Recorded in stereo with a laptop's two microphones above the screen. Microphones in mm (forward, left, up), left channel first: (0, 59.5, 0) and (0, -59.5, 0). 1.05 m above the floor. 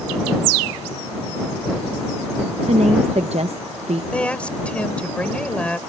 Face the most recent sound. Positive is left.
turn(degrees=10)  # may be behind; listen again after turning